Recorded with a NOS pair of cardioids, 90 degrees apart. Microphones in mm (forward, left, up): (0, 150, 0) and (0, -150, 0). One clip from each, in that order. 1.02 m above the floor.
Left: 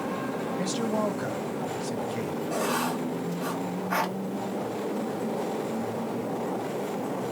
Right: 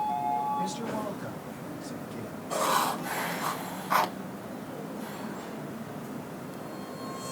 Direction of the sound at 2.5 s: 25° right.